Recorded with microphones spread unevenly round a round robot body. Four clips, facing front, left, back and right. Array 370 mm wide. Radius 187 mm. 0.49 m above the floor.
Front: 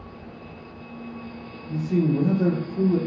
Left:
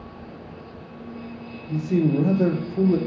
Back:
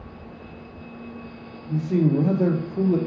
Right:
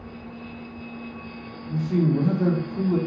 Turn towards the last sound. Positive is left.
turn(degrees=125)